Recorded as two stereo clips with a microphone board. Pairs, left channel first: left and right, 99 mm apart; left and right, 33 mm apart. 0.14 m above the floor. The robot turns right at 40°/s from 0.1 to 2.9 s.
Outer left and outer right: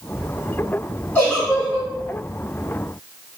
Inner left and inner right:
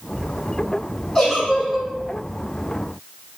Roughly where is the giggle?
Centre.